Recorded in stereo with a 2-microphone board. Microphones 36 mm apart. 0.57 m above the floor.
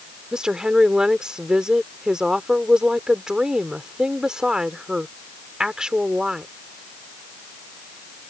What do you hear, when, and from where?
0.3 s a woman speaking: 25° right (ahead or behind)